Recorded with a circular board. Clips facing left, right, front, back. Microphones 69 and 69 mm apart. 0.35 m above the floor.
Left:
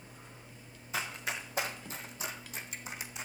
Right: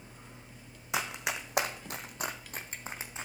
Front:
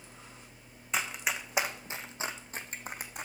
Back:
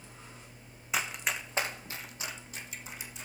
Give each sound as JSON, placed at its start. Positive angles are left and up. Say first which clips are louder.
{"t": 0.9, "sound": "running footsteps", "louder": "right 3 dB, even", "azimuth_deg": -95, "distance_m": 1.4}